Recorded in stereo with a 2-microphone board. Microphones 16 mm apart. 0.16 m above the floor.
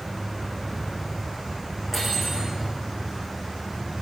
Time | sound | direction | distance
1.9 | cutlery clinking | centre (ahead or behind) | 7 m